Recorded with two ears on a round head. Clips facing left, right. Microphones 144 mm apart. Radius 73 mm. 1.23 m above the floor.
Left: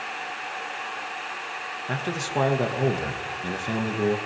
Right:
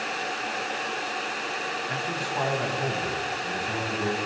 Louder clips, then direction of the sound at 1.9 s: Left 6 dB; 55° left (ahead or behind).